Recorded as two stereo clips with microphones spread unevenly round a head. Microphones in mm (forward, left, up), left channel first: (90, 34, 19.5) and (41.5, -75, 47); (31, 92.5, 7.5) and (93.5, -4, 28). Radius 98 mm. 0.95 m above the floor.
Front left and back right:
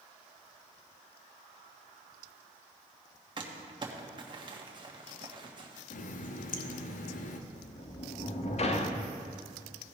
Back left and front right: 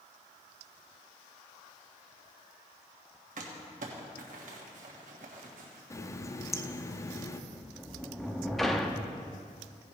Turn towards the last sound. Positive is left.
turn(degrees=35)